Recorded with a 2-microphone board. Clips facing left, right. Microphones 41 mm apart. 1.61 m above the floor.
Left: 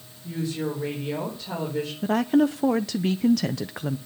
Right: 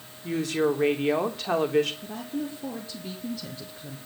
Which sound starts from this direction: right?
A woman speaking, at 0.2 s.